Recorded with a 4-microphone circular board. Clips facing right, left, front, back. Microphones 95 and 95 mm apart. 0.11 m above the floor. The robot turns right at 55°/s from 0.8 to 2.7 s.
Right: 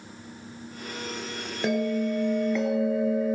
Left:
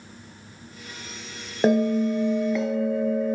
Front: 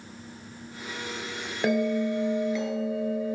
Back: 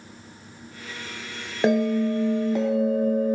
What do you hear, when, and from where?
1.6 s a bell: 125° left, 1.3 m; by 3.4 s 175° right, 1.3 m